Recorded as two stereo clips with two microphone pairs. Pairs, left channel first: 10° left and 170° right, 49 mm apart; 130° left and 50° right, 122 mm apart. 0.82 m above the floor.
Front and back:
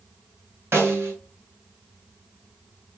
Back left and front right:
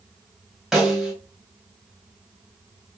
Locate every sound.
0.7 s a snare drum: 135° right, 2.5 m